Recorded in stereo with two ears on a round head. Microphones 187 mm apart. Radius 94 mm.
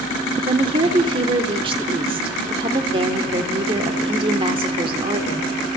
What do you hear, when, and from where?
0.5 s a woman speaking: 25° right (ahead or behind), 2.0 m